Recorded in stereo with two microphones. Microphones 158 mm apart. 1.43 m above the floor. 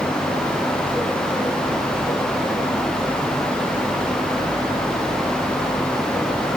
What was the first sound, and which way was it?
Only background noise.